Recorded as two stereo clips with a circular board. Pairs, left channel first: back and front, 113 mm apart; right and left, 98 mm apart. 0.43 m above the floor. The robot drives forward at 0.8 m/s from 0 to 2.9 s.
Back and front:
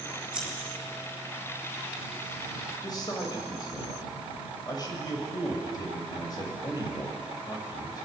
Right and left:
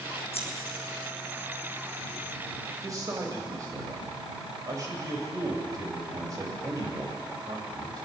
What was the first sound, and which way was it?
Scissors, 85° right.